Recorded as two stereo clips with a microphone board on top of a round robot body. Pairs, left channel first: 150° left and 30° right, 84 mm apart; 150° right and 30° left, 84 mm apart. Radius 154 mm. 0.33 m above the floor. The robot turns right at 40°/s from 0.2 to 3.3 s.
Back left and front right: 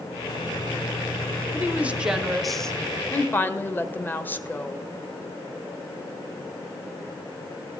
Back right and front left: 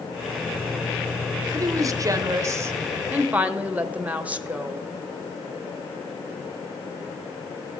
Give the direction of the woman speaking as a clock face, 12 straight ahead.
11 o'clock.